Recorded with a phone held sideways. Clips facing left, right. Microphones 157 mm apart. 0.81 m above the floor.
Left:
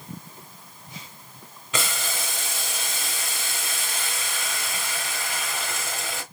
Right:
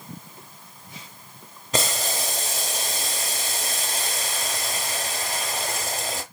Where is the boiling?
40° right (ahead or behind), 0.8 m.